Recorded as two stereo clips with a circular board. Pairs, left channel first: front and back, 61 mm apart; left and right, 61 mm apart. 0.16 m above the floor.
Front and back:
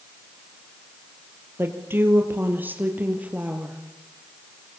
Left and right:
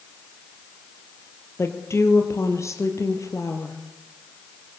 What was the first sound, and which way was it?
A woman speaking, 135° left.